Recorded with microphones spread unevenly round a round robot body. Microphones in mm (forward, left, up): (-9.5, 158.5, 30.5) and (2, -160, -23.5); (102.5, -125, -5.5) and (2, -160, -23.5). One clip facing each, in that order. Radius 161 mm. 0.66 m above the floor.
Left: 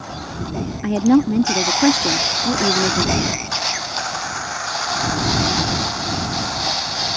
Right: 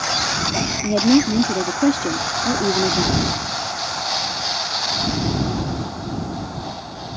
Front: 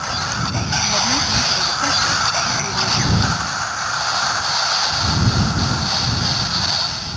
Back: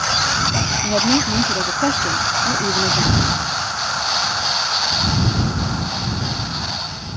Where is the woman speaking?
175° left.